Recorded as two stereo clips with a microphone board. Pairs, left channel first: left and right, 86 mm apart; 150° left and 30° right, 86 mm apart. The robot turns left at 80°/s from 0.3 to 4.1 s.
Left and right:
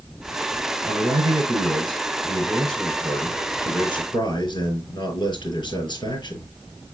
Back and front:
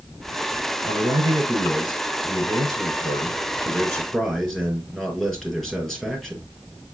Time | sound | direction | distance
0.8 | a man speaking | 30° right | 5 m